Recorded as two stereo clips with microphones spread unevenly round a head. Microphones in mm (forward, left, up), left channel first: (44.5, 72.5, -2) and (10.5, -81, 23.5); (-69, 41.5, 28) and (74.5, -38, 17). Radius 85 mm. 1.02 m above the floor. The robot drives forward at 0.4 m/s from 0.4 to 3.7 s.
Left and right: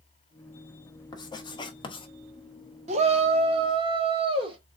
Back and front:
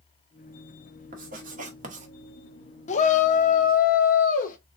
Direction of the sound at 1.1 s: 10° left.